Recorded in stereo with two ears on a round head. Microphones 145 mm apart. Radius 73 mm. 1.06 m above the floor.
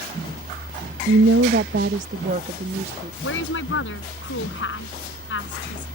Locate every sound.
1.1 s a woman speaking: 80° right; by 3.1 s 35° right (ahead or behind)
3.2 s a woman speaking: 90° left